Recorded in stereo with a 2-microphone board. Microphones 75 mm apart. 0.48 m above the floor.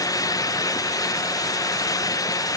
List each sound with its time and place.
Only background noise.